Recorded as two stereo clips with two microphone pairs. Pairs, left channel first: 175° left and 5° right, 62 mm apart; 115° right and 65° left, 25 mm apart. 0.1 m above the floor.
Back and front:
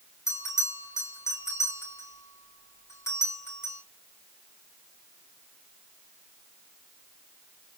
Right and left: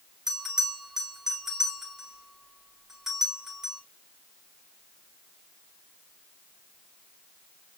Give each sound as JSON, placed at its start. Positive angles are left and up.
{"t": 0.3, "sound": "a bell", "azimuth_deg": 140, "distance_m": 6.5}